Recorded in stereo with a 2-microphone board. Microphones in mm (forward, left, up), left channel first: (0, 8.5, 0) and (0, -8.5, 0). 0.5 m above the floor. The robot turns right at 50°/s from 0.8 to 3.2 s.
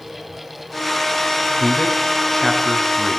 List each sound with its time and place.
1.6 s a man speaking: 65° left (ahead or behind), 6 m; by 3.2 s 15° right (ahead or behind), 6 m